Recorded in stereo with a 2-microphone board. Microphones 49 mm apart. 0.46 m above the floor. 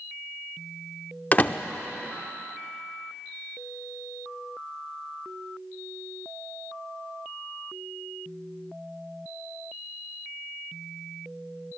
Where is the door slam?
30° left (ahead or behind), 0.5 m.